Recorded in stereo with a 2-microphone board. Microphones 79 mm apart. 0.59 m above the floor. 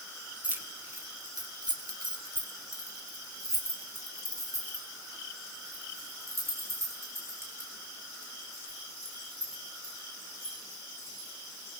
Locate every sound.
0.4 s keys jangling: 20° right (ahead or behind), 2 m; by 11.3 s 35° right (ahead or behind), 12 m